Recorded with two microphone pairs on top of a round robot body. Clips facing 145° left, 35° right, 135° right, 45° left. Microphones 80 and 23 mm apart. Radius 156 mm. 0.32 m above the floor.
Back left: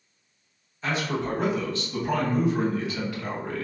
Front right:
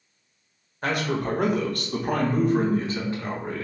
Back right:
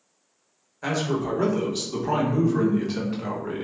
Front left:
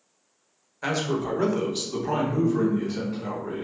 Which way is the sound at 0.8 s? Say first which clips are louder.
Front right 2 dB, back right 1 dB; 10° right.